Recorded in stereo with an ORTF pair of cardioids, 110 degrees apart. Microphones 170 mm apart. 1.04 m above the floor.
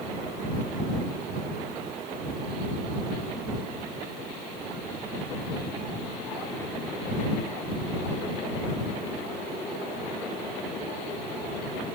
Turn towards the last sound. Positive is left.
No sound to turn to.